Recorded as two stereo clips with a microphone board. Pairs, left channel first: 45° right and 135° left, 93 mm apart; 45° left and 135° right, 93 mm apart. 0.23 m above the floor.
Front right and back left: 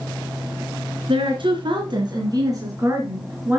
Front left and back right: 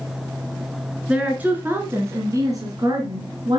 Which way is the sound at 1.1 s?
150° left.